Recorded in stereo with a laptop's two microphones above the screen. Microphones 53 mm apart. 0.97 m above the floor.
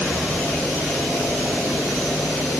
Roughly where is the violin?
I don't hear a violin.